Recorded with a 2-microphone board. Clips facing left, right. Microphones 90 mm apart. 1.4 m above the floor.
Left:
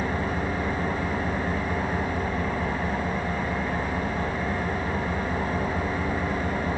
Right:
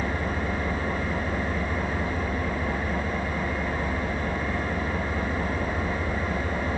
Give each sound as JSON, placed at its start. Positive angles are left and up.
{"t": 0.0, "sound": "an engine running", "side_deg": 35, "distance_m": 7.0}